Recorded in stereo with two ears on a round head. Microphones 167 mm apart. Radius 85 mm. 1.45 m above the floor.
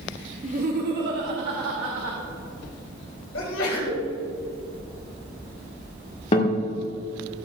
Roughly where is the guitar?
Left.